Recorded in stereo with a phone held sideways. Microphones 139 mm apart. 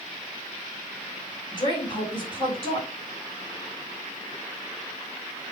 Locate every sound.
1.5 s a woman speaking: 35° left (ahead or behind), 6 m